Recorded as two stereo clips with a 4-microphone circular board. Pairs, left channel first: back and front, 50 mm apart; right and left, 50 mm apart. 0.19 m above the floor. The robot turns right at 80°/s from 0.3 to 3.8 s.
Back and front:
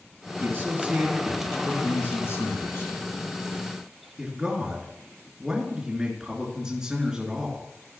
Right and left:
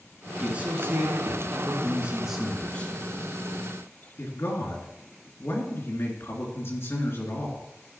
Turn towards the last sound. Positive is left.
turn(degrees=-70)